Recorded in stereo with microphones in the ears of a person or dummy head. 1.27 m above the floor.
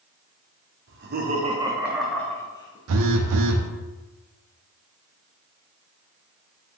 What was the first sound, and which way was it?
Laughter, 55° right (ahead or behind).